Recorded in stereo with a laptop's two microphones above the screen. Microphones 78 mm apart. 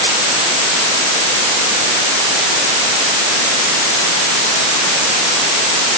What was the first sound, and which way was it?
Only background noise.